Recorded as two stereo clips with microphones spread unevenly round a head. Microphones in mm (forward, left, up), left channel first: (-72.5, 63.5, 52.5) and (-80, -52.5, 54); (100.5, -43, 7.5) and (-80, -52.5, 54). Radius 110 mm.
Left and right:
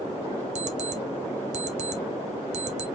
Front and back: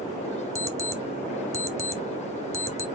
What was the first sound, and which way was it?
An alarm clock, 110° right.